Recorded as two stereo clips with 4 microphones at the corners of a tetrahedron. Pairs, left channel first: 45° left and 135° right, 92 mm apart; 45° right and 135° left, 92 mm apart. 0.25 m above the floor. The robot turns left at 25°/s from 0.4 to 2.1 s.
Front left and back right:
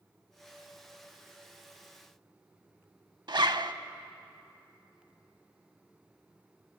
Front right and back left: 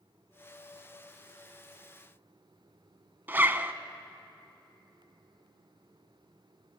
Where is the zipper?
160° right, 0.5 m.